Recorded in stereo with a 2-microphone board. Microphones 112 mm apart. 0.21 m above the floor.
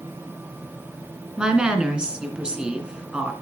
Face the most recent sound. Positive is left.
turn(degrees=-10)  # may be behind; listen again after turning